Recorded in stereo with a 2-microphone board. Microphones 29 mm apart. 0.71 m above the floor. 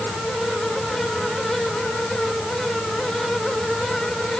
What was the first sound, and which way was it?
Only background noise.